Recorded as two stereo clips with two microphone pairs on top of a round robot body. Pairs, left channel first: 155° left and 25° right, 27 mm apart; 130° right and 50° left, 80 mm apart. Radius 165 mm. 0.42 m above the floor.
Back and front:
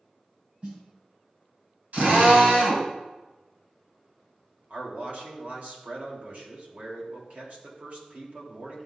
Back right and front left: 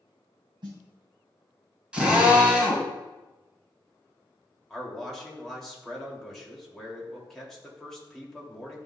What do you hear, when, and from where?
0.6 s a snare drum: 25° left, 2.5 m
1.9 s a drill: 25° right, 2.5 m
4.7 s a man speaking: 45° right, 3 m